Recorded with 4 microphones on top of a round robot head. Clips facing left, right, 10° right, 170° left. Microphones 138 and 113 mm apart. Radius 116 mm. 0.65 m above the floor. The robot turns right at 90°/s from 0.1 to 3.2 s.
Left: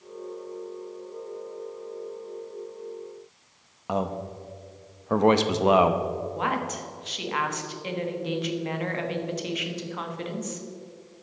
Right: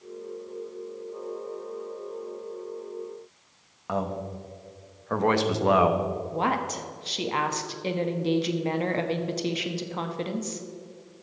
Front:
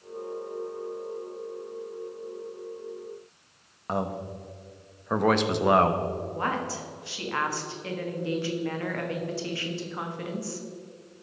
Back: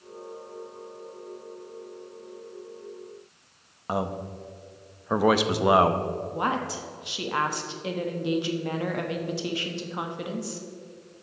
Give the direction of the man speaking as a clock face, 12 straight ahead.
9 o'clock.